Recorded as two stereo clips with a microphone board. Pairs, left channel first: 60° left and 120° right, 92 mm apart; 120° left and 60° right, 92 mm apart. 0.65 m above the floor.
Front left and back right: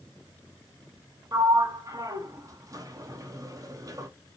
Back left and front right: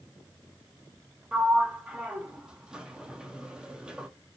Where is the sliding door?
135° right, 0.8 m.